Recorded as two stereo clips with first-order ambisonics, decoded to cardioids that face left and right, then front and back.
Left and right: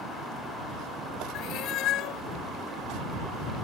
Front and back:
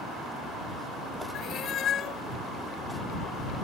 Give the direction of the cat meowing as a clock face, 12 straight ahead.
10 o'clock.